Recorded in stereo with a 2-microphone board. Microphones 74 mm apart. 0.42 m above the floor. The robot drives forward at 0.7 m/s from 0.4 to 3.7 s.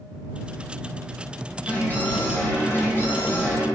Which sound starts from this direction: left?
An alarm, at 1.7 s.